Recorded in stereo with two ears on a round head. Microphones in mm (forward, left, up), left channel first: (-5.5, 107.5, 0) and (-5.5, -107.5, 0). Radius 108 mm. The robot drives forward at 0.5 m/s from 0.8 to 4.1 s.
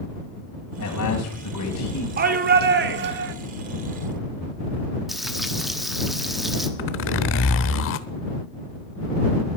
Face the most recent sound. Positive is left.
turn(degrees=55)  # may be behind; listen again after turning